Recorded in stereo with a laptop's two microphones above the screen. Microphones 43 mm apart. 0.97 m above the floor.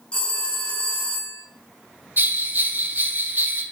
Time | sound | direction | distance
0.1 | a phone ringing | 25° left (ahead or behind) | 3.5 m
2.2 | a bell | 50° right (ahead or behind) | 1.1 m